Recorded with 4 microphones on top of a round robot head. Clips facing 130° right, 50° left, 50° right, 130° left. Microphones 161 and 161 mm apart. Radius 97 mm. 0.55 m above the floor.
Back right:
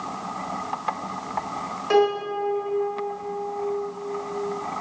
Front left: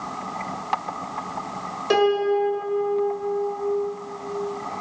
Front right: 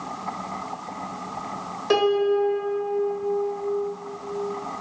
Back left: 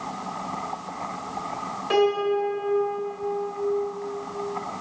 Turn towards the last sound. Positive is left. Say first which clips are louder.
# front left 2 dB, front right 2 dB
turn(degrees=-5)